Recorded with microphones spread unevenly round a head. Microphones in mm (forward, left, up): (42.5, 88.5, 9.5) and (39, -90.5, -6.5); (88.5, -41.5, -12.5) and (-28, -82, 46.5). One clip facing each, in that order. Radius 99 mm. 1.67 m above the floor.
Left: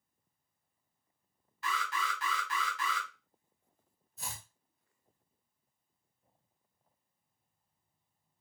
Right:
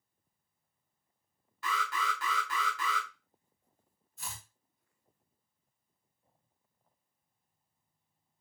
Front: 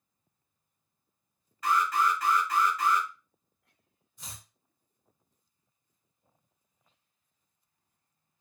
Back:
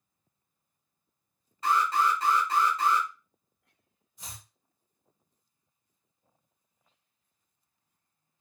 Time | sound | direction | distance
1.6 | an alarm | 100° right | 2 m
4.2 | chopping | 135° left | 2.0 m